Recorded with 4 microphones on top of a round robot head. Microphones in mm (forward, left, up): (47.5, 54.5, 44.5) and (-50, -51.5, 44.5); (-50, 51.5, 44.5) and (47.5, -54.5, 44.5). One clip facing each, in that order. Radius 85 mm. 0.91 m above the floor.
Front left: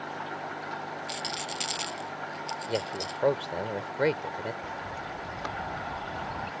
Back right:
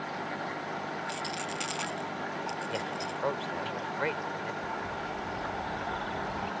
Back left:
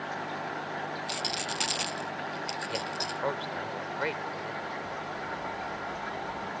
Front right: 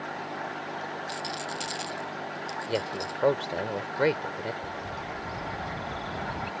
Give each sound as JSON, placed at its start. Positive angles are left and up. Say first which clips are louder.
{"t": 1.1, "sound": "a rattle", "louder": "back right 1 dB, front right 1 dB", "azimuth_deg": 100}
{"t": 2.7, "sound": "a man speaking", "louder": "front left 3 dB, front right 8 dB", "azimuth_deg": -5}
{"t": 4.6, "sound": "a bird", "louder": "back right 2 dB, front right 1 dB", "azimuth_deg": -35}